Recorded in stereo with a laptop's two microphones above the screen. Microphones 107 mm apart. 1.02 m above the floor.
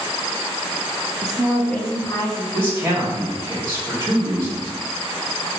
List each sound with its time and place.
1.2 s a woman speaking: 40° right (ahead or behind), 0.8 m; by 2.4 s 40° left (ahead or behind), 1.5 m
2.5 s a man speaking: 35° right (ahead or behind), 2 m